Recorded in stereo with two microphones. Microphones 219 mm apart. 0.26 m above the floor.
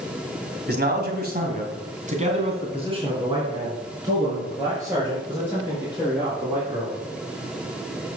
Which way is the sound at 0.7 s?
50° right (ahead or behind).